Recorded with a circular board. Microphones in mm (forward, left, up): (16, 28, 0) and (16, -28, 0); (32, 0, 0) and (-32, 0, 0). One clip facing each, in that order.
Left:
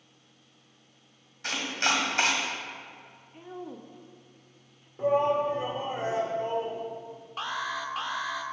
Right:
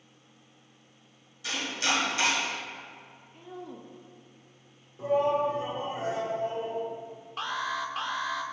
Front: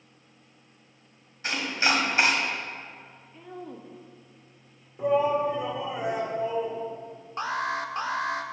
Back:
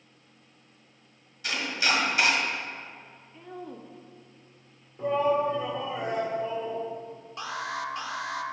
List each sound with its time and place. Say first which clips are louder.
1.4 s chopping: left 2 dB, front 2 dB; 55° left, 1.9 m
3.3 s a woman speaking: left 2 dB, even; 95° left, 0.7 m
5.0 s a shout: left 1 dB, front 1 dB; 70° left, 1.3 m
7.4 s an alarm: right 1 dB, front 5 dB; straight ahead, 0.6 m